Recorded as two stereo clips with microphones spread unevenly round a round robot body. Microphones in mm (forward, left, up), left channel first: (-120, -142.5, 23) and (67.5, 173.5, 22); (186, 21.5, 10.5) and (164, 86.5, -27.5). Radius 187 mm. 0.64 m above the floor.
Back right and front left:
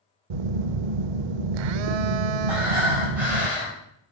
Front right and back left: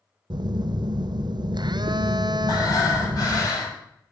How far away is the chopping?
No chopping in this recording.